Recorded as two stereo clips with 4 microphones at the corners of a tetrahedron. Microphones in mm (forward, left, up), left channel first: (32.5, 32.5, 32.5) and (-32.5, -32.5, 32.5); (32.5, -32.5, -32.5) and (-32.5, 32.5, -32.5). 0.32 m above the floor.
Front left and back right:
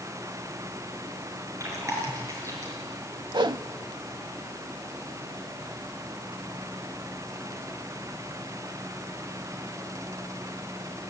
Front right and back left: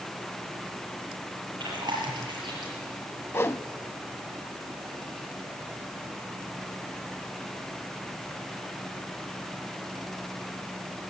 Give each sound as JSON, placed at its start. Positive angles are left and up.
{"t": 1.6, "sound": "chewing", "azimuth_deg": 170, "distance_m": 6.5}
{"t": 3.3, "sound": "a whoosh", "azimuth_deg": -105, "distance_m": 0.5}